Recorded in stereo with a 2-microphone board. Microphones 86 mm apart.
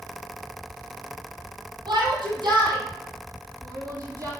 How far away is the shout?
About 4 m.